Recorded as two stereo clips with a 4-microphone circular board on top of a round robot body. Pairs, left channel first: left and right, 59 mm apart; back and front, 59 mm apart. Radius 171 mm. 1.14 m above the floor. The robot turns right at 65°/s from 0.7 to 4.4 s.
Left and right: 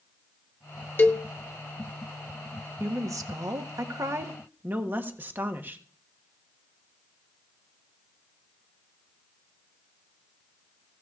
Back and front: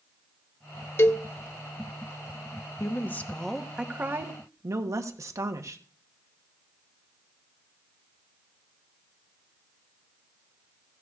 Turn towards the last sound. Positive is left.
turn(degrees=-35)